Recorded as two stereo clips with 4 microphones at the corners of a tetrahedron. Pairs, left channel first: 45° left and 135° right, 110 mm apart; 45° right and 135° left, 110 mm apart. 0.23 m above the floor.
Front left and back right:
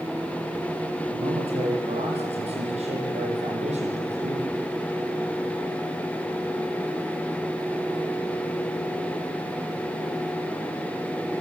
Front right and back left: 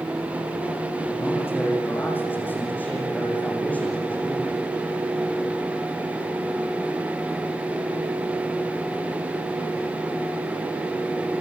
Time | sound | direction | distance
1.1 | a man speaking | 110° right | 9.5 m